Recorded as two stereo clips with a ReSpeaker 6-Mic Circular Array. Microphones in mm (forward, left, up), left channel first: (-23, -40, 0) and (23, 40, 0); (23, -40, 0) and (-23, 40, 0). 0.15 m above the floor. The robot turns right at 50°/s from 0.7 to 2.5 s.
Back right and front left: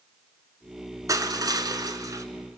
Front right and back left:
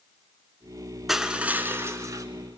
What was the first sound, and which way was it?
Crushing, 35° left.